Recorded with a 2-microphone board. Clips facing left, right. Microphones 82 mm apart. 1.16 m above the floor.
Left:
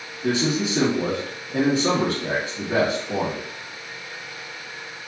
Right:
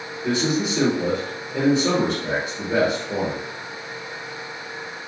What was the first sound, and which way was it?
A man speaking, 50° left (ahead or behind).